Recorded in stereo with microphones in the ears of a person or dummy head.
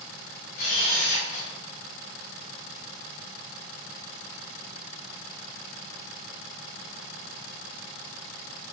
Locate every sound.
0.6 s a camera shutter: 35° left (ahead or behind), 0.8 m